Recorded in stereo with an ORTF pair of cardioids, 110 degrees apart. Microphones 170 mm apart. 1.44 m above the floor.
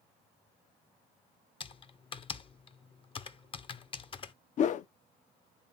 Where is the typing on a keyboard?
30° left, 0.7 m.